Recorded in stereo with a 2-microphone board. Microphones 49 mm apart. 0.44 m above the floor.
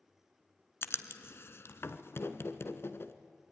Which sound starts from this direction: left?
Writing, at 0.8 s.